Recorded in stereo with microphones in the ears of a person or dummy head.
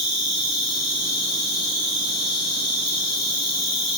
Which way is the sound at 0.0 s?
20° left (ahead or behind).